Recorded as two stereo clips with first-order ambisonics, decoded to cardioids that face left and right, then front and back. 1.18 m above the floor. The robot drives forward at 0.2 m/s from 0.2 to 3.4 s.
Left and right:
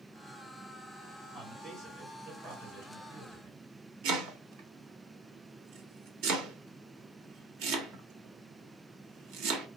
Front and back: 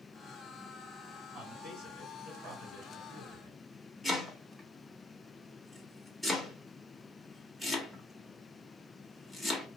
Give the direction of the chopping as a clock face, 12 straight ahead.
3 o'clock.